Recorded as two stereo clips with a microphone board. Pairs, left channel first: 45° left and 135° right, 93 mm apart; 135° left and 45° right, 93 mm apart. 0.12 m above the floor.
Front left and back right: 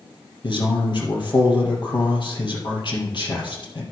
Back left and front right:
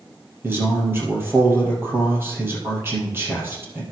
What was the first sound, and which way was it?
A man speaking, 20° left.